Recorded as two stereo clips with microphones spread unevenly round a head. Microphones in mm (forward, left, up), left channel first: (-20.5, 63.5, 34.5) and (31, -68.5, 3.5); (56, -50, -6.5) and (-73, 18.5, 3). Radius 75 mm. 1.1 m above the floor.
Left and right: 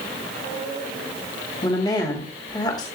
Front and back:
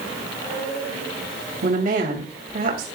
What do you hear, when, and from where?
1.6 s a woman speaking: straight behind, 3 m